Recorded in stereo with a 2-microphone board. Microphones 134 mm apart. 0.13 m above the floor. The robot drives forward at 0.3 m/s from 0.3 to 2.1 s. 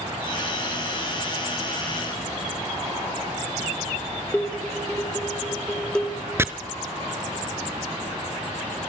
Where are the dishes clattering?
5° left (ahead or behind), 2 m.